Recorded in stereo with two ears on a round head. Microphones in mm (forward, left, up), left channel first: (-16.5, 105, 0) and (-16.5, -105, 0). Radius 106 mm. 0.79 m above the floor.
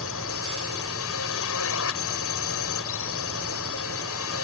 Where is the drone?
60° left (ahead or behind).